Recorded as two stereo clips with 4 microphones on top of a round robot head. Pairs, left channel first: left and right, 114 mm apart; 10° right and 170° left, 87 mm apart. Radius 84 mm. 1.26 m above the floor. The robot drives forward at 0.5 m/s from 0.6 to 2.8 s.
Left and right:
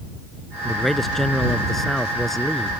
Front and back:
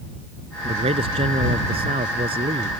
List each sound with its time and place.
0.7 s a man speaking: straight behind